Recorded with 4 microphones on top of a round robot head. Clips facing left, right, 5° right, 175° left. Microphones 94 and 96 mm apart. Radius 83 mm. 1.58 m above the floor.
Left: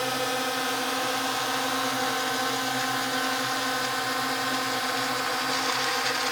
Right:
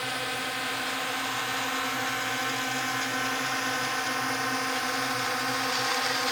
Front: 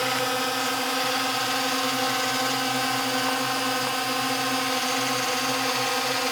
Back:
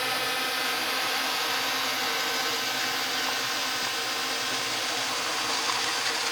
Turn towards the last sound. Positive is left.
turn(degrees=0)